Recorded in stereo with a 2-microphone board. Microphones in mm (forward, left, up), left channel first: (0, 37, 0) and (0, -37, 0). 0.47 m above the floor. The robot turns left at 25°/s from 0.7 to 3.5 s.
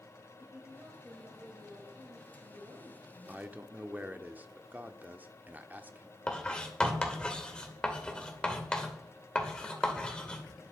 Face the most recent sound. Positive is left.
turn(degrees=15)  # may be behind; listen again after turning